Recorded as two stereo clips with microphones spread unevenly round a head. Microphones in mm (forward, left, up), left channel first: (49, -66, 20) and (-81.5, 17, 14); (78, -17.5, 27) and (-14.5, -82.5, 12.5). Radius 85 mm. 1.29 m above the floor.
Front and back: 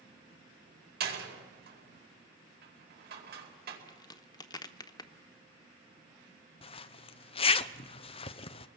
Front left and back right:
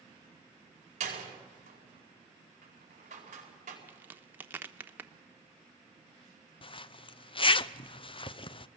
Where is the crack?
75° right, 1.0 m.